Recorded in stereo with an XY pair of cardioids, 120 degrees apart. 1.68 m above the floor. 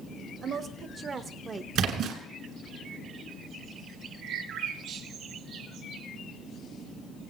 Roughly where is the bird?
Ahead right.